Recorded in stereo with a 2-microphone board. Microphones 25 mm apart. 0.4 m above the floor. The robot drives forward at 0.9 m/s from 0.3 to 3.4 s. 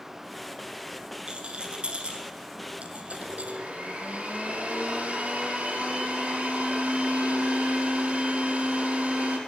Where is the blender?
70° right (ahead or behind), 5 m.